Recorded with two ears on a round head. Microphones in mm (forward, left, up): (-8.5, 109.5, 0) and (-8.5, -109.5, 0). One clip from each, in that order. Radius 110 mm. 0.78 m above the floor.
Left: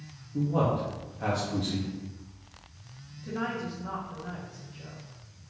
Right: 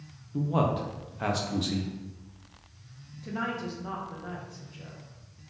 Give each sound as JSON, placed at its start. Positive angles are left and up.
{"t": 0.3, "sound": "a man speaking", "side_deg": -30, "distance_m": 0.5}
{"t": 3.2, "sound": "a woman speaking", "side_deg": -25, "distance_m": 0.9}